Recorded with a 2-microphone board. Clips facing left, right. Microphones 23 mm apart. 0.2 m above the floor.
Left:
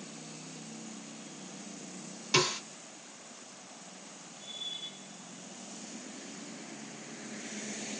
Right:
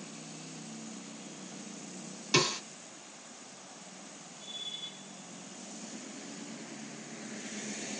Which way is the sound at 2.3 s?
10° right (ahead or behind).